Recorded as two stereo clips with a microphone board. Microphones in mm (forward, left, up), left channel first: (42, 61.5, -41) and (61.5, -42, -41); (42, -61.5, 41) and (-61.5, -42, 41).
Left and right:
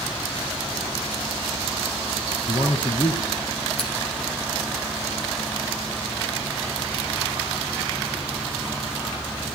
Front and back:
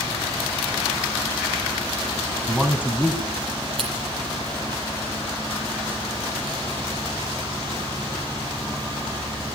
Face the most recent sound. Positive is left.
turn(degrees=135)